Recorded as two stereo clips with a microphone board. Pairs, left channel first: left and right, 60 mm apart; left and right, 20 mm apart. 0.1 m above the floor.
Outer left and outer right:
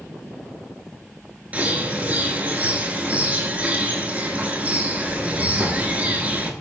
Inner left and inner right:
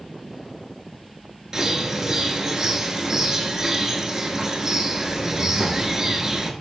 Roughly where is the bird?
Right.